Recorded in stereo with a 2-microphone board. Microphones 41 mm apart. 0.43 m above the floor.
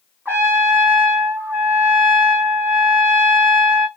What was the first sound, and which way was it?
A trumpet, 70° right (ahead or behind).